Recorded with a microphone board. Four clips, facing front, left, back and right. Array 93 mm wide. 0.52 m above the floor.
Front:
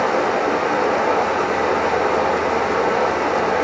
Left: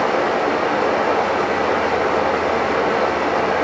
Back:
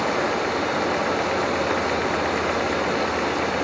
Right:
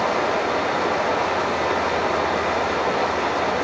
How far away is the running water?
About 9 m.